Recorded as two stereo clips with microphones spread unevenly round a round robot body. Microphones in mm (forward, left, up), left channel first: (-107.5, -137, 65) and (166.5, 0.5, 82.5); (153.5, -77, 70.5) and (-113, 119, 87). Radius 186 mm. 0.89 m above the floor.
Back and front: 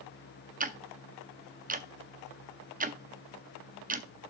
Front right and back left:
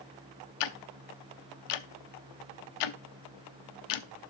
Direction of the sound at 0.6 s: 40° right.